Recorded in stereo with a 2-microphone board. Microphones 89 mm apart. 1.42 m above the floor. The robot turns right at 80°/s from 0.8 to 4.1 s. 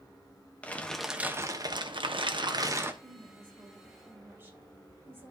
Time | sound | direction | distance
0.6 | crumpling | 165° left | 0.9 m
3.0 | a woman speaking | 110° right | 2.5 m